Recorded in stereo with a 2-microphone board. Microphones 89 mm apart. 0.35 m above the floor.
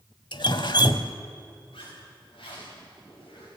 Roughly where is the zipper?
Left.